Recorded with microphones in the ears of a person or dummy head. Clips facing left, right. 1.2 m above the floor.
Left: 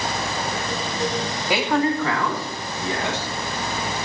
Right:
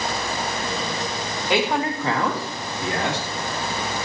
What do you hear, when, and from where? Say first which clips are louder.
1.5 s a man speaking: left 1 dB; 10° left (ahead or behind), 1.3 m; by 3.3 s 55° right (ahead or behind), 2.5 m